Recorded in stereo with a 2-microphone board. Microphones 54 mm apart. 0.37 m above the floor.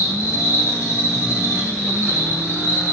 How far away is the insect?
About 2 m.